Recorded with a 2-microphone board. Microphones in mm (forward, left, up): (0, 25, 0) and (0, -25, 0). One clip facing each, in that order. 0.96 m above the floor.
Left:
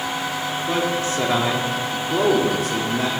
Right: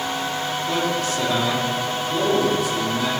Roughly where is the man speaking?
Left.